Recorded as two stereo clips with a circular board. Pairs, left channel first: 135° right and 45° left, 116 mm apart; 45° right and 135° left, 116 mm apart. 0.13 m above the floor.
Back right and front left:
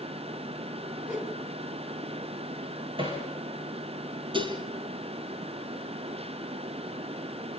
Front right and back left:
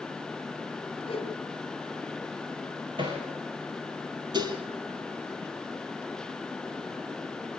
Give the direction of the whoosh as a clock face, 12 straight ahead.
1 o'clock.